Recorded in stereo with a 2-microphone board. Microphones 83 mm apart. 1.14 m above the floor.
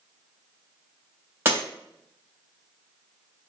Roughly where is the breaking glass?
Right.